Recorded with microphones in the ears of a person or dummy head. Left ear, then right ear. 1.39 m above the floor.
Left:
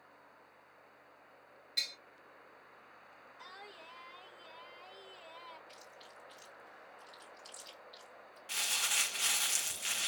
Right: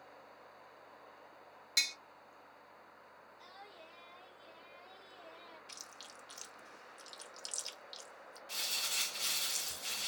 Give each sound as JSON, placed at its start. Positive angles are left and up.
{"t": 1.8, "sound": "tapping", "side_deg": -45, "distance_m": 1.0}
{"t": 3.4, "sound": "singing", "side_deg": 55, "distance_m": 1.0}
{"t": 5.7, "sound": "chewing", "side_deg": -65, "distance_m": 1.2}
{"t": 8.5, "sound": "crumpling", "side_deg": 45, "distance_m": 0.6}